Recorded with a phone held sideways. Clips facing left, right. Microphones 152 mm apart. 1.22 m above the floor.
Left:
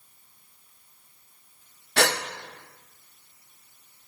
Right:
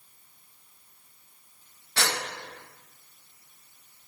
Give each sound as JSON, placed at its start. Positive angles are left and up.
{"t": 2.0, "sound": "a gasp", "side_deg": 65, "distance_m": 0.6}